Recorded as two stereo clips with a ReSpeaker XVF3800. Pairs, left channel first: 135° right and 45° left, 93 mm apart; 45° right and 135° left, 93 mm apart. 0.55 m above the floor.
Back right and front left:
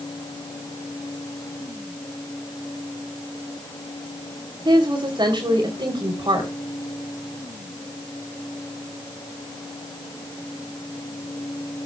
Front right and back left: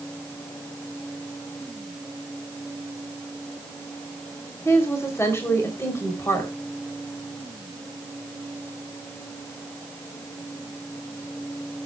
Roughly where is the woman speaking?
Ahead.